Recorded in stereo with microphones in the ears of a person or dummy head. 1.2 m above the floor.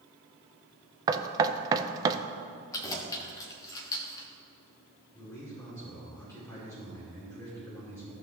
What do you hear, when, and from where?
1.1 s knocking: 25° right (ahead or behind), 0.5 m
2.7 s keys jangling: 20° left (ahead or behind), 1.3 m
5.1 s a man speaking: 15° left (ahead or behind), 3.5 m